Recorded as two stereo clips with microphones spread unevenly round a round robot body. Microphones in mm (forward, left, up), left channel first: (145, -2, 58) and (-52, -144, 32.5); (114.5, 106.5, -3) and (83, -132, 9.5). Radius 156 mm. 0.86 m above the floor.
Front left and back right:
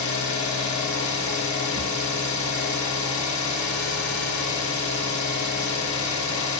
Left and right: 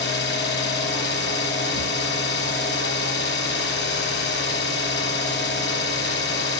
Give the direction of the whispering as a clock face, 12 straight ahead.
No whispering in this recording.